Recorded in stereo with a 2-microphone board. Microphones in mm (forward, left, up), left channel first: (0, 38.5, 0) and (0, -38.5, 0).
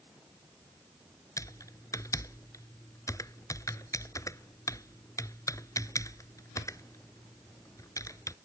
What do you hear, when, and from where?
1.4 s typing on a keyboard: 45° left (ahead or behind)